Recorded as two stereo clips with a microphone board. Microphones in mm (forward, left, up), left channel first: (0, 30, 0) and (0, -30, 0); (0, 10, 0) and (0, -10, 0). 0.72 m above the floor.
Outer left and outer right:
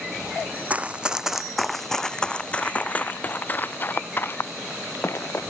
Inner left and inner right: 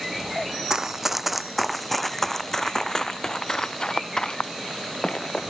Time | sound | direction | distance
0.7 | running footsteps | 25° right (ahead or behind) | ?